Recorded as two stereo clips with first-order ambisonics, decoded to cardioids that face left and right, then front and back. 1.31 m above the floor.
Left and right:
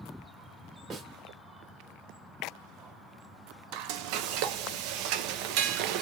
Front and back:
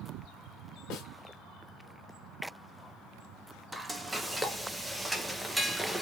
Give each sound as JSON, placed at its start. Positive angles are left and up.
{"t": 0.9, "sound": "a snare drum", "azimuth_deg": -30, "distance_m": 1.3}
{"t": 3.7, "sound": "frying", "azimuth_deg": -95, "distance_m": 0.5}